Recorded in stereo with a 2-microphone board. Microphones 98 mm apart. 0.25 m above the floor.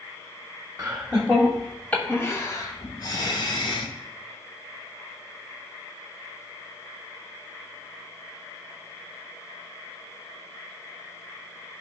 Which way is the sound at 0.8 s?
20° right (ahead or behind).